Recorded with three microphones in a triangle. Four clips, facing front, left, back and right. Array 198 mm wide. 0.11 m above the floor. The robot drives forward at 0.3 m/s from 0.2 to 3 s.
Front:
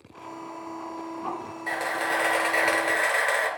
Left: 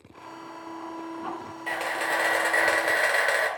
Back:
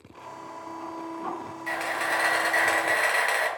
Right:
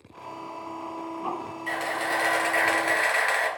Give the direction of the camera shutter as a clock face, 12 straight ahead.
10 o'clock.